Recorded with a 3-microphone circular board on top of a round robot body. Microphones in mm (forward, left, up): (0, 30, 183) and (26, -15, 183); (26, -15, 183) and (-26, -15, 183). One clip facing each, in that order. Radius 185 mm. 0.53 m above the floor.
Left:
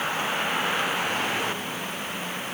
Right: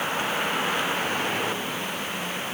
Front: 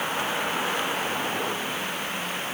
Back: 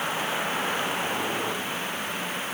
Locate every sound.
Only background noise.